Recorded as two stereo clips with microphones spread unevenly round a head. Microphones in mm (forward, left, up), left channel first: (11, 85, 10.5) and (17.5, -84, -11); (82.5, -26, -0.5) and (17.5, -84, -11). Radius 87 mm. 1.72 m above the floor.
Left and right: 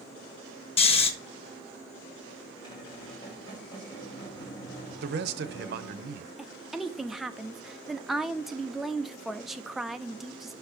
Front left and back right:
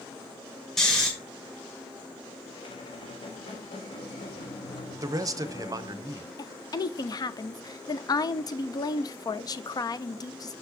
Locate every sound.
0.8 s snoring: 115° left, 1.0 m
2.5 s a squeak: 30° left, 2.5 m
5.0 s a man speaking: 95° right, 0.8 m
6.4 s a woman speaking: 5° left, 0.7 m